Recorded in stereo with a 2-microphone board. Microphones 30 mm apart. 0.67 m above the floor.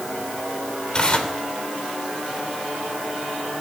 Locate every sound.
0.9 s tearing paper: 25° left (ahead or behind), 3 m